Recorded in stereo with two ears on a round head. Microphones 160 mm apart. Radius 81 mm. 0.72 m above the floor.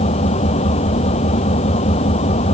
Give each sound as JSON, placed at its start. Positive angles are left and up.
{"t": 0.0, "sound": "an engine running", "side_deg": 35}